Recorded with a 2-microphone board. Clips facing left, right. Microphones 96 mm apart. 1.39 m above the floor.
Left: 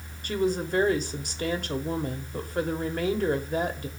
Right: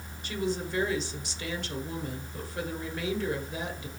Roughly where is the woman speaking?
Left.